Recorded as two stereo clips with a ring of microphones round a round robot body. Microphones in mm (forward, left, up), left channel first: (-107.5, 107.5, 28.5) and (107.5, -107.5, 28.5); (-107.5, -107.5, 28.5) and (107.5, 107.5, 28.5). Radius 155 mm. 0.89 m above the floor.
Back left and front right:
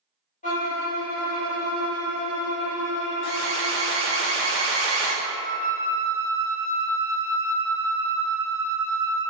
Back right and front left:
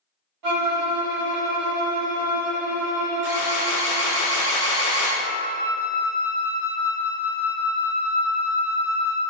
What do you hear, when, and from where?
0.4 s a violin: 70° left, 1.1 m
3.2 s an alarm: 90° right, 0.7 m
5.2 s a flute: 70° left, 0.7 m